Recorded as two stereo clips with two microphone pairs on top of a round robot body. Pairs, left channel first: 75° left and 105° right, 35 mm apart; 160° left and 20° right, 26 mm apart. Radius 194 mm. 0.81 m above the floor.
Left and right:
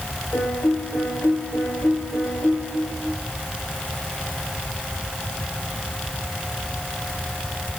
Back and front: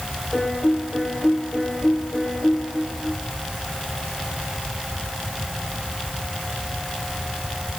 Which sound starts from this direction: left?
A piano, at 0.3 s.